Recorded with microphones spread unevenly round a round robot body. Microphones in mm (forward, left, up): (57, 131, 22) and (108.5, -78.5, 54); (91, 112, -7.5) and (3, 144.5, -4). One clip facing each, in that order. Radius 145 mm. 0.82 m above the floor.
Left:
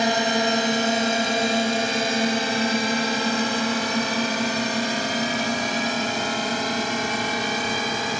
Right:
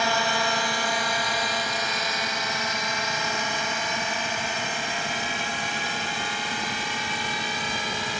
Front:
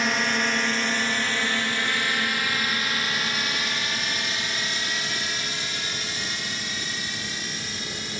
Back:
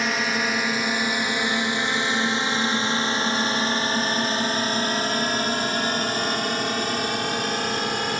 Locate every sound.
0.0 s a drone: 75° left; by 8.2 s 140° left